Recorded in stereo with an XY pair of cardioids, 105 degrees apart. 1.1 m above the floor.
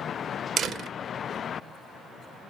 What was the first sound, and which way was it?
A door slam, 60° right.